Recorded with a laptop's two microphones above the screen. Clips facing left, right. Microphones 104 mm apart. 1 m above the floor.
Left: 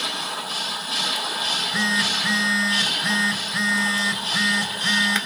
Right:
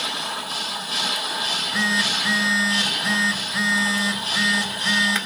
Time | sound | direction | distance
1.4 | a phone buzzing | 5° right (ahead or behind) | 3.5 m